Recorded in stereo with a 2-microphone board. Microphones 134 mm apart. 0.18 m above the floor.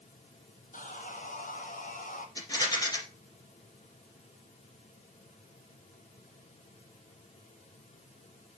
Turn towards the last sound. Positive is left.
turn(degrees=25)  # may be behind; listen again after turning